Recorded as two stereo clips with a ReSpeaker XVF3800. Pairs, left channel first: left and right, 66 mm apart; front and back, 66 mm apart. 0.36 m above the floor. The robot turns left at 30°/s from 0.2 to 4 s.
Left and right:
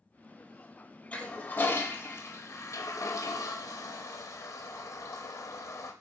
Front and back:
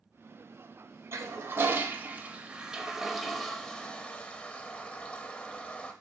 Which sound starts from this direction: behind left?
A toilet flushing, at 1.1 s.